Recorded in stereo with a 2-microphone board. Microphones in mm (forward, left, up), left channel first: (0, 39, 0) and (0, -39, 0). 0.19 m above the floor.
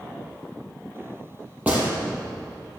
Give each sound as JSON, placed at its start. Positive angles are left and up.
{"t": 1.7, "sound": "a gunshot", "side_deg": -20, "distance_m": 2.5}